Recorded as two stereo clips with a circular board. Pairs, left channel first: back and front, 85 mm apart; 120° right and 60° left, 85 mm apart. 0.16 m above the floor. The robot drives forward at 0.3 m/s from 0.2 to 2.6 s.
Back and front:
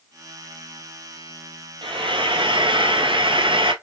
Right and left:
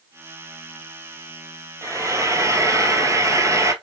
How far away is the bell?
I don't hear a bell.